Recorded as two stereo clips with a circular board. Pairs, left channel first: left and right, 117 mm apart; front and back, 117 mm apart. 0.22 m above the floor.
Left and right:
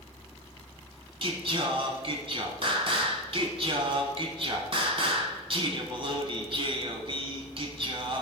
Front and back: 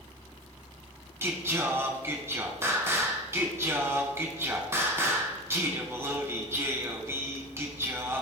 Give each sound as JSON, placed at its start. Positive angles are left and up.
{"t": 1.2, "sound": "singing", "azimuth_deg": -115, "distance_m": 0.9}